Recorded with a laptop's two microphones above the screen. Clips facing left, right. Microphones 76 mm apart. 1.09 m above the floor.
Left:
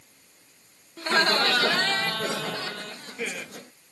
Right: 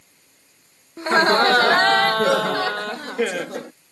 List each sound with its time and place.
1.0 s laughter: 20° right (ahead or behind); by 3.7 s 80° right